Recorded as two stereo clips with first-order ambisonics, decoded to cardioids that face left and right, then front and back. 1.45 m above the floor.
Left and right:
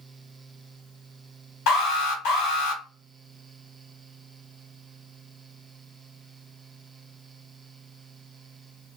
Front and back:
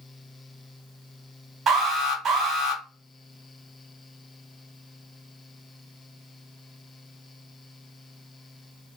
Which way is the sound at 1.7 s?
115° left.